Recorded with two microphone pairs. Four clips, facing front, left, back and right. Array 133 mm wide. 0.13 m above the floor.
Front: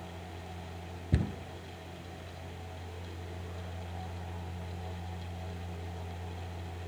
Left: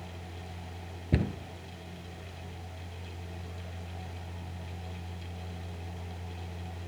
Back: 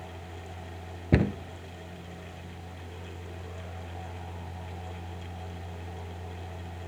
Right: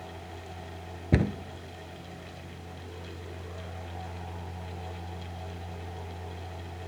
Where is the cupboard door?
160° right, 0.7 m.